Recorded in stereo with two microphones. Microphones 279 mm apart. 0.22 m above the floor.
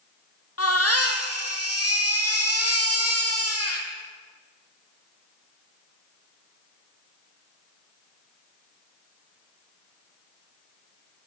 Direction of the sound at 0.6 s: 60° left (ahead or behind).